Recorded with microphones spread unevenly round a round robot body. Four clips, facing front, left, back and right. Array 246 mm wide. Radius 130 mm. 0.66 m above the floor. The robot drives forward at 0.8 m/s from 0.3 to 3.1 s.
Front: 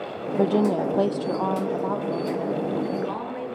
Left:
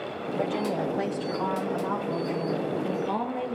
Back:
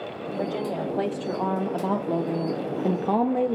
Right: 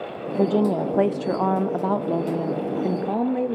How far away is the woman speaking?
About 1.5 m.